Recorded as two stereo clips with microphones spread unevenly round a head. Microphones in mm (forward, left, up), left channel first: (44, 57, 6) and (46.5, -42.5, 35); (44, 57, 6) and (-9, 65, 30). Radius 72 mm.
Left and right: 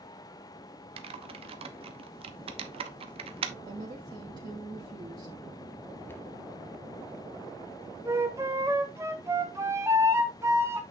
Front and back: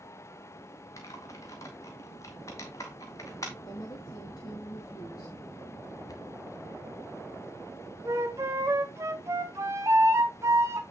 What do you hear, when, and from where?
1.0 s typing on a keyboard: 65° right, 1.1 m
3.6 s a woman speaking: 45° right, 3 m
6.1 s a cupboard door: 15° left, 1.4 m
8.1 s a flute: 150° right, 0.7 m